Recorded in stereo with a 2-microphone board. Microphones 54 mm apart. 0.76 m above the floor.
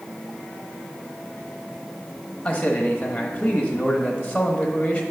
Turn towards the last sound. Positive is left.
turn(degrees=20)  # may be behind; listen again after turning